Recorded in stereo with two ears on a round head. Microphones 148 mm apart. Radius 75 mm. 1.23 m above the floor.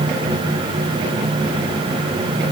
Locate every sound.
Only background noise.